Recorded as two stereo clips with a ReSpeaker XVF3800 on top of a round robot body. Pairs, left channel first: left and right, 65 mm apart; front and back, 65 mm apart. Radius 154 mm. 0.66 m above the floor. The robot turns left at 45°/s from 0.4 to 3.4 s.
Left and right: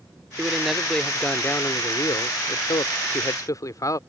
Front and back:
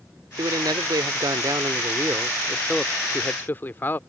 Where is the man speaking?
165° right; by 4.0 s 60° left.